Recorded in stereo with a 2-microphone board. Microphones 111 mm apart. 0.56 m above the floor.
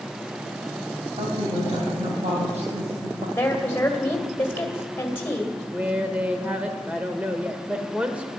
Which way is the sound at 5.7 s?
10° right (ahead or behind).